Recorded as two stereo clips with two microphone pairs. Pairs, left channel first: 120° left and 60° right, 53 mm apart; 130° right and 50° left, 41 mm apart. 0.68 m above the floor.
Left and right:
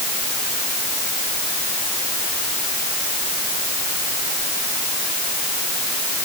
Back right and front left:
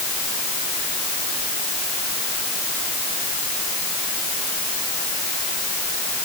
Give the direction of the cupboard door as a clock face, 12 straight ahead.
No cupboard door in this recording.